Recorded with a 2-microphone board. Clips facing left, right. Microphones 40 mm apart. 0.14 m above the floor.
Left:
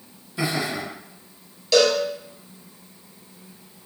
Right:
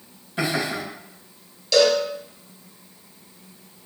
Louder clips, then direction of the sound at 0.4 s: Right 1 dB; 40° right (ahead or behind).